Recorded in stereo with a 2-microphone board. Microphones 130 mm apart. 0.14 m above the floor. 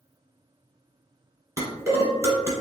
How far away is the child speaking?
No child speaking in this recording.